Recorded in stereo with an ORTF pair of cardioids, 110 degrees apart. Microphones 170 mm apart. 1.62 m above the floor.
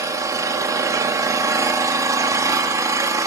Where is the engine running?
20° right, 3.5 m.